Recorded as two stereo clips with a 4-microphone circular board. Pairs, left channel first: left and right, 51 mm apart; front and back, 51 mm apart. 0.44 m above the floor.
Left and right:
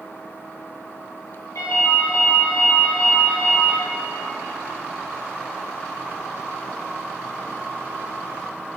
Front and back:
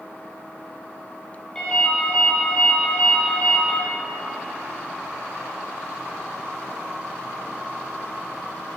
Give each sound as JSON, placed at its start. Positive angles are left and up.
{"t": 1.6, "sound": "a ringtone", "azimuth_deg": 80, "distance_m": 5.0}